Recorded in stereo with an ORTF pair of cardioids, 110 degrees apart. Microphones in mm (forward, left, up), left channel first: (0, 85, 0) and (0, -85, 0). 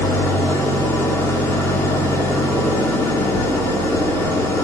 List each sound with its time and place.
0.0 s an engine running: 15° left, 1.8 m